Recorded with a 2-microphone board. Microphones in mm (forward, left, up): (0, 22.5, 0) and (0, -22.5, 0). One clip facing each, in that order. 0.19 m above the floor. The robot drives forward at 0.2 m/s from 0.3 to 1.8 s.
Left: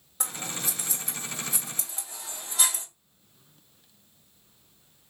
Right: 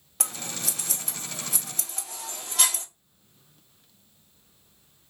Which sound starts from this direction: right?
Scissors, at 0.2 s.